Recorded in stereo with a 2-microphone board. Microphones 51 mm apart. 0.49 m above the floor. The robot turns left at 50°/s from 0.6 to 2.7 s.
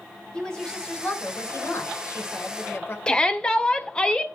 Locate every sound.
0.3 s a woman speaking: 160° left, 2 m; by 3.0 s 55° left, 2 m
3.1 s a shout: 15° left (ahead or behind), 1.2 m